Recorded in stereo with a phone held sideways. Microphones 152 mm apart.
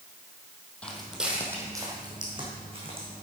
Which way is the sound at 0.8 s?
5° left (ahead or behind).